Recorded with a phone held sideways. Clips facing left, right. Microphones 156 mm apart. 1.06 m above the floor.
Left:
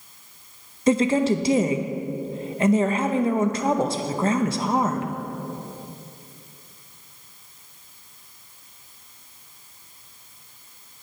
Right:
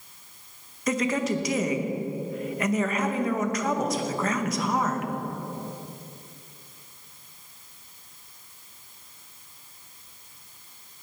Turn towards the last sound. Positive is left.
turn(degrees=30)  # may be behind; listen again after turning